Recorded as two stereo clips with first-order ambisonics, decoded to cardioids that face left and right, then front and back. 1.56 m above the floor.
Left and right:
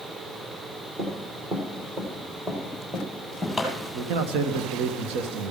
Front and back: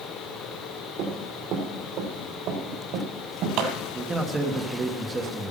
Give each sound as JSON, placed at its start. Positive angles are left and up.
{"t": 1.0, "sound": "running footsteps", "azimuth_deg": -150, "distance_m": 3.0}
{"t": 3.9, "sound": "a man speaking", "azimuth_deg": -105, "distance_m": 1.4}